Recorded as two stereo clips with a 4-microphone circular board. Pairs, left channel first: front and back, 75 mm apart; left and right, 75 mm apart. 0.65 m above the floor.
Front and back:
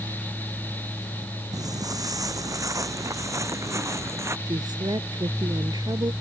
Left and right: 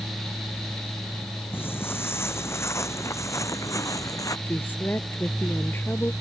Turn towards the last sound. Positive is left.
turn(degrees=150)